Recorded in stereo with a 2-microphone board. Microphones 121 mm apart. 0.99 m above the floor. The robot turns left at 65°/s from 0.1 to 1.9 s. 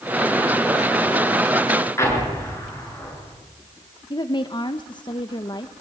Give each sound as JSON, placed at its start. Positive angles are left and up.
{"t": 2.0, "sound": "an explosion", "side_deg": 25, "distance_m": 8.5}
{"t": 4.1, "sound": "a woman speaking", "side_deg": 40, "distance_m": 1.0}